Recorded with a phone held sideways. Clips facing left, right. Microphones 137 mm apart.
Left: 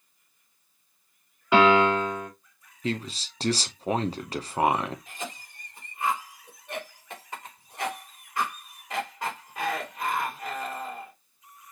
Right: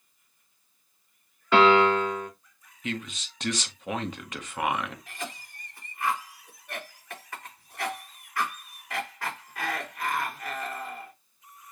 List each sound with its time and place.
1.5 s a piano: 15° left (ahead or behind), 2 m
2.8 s a man speaking: 35° left (ahead or behind), 0.6 m
5.1 s a cough: 20° left (ahead or behind), 2.5 m